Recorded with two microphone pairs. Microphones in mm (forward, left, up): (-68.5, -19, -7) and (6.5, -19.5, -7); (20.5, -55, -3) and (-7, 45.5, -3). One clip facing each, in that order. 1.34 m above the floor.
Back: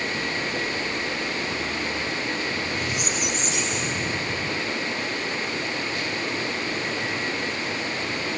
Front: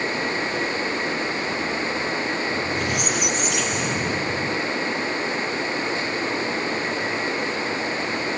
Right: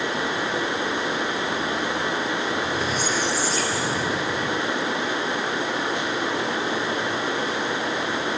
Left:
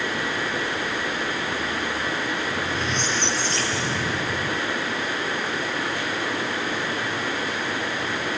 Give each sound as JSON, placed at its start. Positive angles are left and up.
{"t": 2.5, "sound": "a squeak", "azimuth_deg": 10, "distance_m": 3.0}